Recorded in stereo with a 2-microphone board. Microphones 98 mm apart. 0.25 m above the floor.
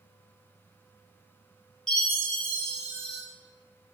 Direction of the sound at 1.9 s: 5° left (ahead or behind).